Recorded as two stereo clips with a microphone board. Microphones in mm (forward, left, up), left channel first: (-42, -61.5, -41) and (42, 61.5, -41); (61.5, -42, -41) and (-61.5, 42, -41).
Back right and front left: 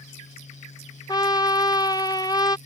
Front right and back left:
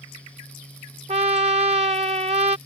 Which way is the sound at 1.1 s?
Straight behind.